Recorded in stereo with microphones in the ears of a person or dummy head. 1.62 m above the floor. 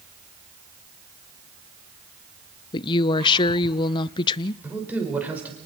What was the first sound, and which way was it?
A woman speaking, 30° left (ahead or behind).